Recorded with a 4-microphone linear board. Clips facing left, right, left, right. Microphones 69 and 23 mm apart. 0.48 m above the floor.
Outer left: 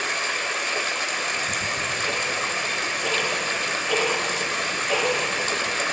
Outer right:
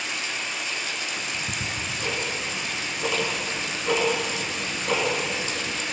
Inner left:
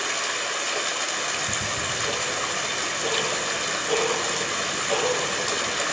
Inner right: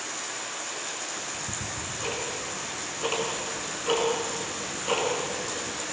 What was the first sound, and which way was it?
Running water, 60° left (ahead or behind).